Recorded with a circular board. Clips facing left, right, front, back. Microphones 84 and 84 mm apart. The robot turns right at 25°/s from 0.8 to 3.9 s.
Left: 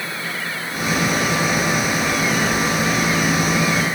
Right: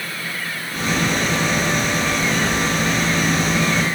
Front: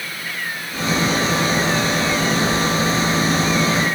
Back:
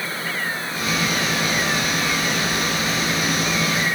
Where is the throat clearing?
I don't hear throat clearing.